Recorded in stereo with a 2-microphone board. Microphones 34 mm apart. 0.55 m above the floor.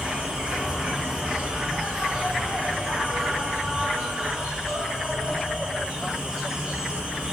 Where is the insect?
25° right (ahead or behind), 1.2 m.